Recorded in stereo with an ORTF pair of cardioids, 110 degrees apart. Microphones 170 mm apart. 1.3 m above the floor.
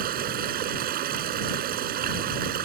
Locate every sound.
0.0 s running water: 60° right